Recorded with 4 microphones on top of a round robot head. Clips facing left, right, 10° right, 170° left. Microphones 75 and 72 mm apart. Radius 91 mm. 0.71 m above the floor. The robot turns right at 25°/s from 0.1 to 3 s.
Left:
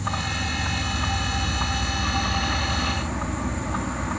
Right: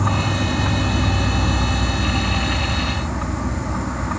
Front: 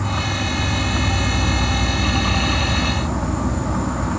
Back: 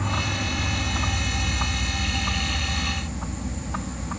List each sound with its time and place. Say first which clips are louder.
0.0 s an insect: right 7 dB, front 4 dB; 85° right; by 4.2 s 10° right